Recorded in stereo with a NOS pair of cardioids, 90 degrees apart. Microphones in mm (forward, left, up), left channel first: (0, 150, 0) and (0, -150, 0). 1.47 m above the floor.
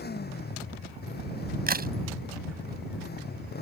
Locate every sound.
0.0 s a motorcycle: 35° left
1.7 s a crack: 30° right